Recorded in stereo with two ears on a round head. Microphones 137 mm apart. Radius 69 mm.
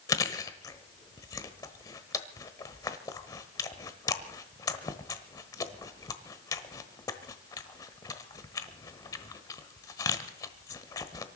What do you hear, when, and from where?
0.1 s chewing: 25° left (ahead or behind), 1.2 m